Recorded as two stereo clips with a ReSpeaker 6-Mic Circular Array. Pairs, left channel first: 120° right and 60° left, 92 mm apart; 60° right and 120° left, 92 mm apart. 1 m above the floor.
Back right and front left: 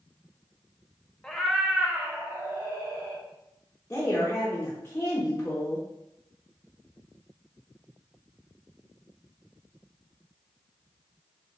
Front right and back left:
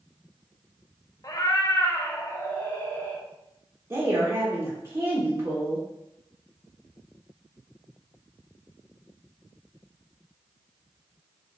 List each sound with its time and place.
1.2 s a cat meowing: 45° right, 0.5 m; by 3.2 s 5° left, 1.3 m
3.9 s a woman speaking: 170° left, 0.9 m